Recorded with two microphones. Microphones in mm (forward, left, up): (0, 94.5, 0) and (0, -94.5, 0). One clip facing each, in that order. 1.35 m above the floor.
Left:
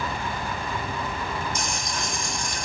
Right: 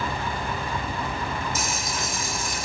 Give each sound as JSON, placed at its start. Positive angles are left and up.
{"t": 1.6, "sound": "frying", "side_deg": -5, "distance_m": 1.0}